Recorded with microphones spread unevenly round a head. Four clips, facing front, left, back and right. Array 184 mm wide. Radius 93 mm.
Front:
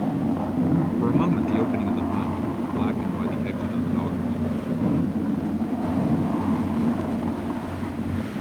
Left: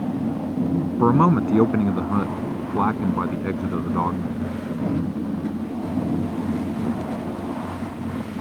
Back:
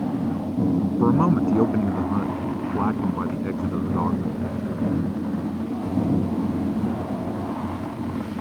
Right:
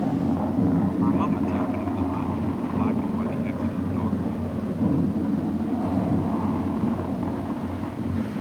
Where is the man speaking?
105° left; by 4.6 s 110° left.